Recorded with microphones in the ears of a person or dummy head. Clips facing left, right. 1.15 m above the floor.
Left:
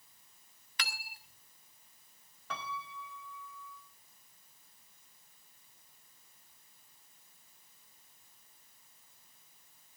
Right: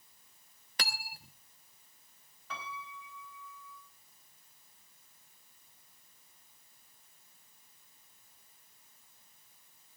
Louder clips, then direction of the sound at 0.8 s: Right 4 dB; 35° right (ahead or behind).